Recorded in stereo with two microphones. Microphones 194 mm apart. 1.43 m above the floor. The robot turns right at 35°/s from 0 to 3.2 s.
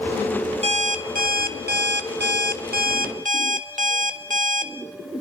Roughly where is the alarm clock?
Behind right.